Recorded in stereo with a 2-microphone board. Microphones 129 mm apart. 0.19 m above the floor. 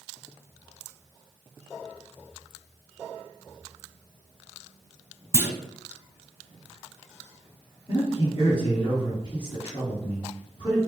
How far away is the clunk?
About 0.6 m.